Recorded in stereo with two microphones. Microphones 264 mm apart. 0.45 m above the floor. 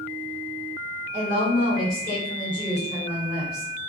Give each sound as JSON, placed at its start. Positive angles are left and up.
{"t": 1.1, "sound": "a woman speaking", "side_deg": 35, "distance_m": 1.5}